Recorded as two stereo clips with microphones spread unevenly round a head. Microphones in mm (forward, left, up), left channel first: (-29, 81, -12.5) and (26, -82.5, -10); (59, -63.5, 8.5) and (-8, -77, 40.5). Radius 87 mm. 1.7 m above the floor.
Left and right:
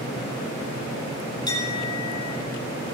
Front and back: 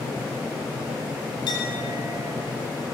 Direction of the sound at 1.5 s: 40° left.